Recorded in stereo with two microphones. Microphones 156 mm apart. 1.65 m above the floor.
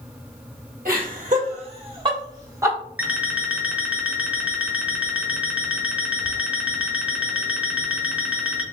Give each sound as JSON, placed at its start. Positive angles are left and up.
{"t": 0.8, "sound": "laughter", "side_deg": -65, "distance_m": 1.2}
{"t": 3.0, "sound": "an alarm clock", "side_deg": -10, "distance_m": 0.7}